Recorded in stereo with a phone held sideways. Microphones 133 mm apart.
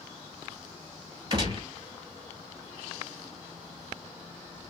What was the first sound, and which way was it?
A gunshot, 35° right (ahead or behind).